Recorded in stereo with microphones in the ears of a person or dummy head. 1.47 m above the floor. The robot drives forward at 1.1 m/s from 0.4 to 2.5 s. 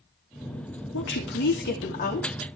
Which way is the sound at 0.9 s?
70° left (ahead or behind).